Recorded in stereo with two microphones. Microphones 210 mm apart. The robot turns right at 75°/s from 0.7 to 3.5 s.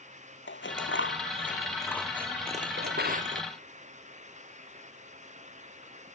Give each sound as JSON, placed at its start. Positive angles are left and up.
{"t": 0.5, "sound": "scissors", "side_deg": 70}
{"t": 2.8, "sound": "a drawer", "side_deg": -70}